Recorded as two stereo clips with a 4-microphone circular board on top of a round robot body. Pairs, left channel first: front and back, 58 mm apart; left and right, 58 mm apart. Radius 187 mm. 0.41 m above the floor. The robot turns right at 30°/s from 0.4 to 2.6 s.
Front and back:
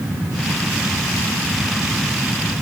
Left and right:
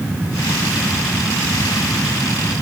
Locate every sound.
Only background noise.